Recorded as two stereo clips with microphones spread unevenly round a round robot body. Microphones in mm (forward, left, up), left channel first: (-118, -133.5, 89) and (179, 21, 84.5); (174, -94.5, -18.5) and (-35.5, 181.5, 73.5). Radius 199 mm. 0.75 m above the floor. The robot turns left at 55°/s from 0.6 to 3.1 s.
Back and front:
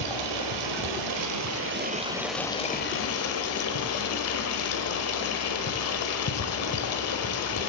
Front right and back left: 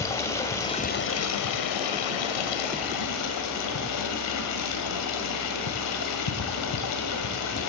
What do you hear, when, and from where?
0.0 s running water: 30° left, 1.4 m; by 7.7 s 105° right, 1.4 m